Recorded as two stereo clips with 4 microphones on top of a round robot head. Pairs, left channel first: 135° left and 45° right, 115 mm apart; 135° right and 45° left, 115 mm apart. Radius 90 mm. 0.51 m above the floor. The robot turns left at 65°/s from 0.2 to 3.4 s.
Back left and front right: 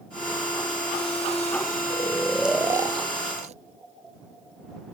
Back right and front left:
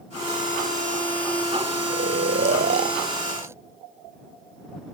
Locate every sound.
1.9 s snoring: 75° left; by 3.5 s 25° right